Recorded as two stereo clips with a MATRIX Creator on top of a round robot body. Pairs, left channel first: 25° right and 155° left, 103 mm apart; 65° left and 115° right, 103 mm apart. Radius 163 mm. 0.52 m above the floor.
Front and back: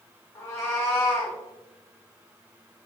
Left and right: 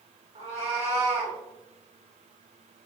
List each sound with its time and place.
0.3 s a cat meowing: 85° right, 1.1 m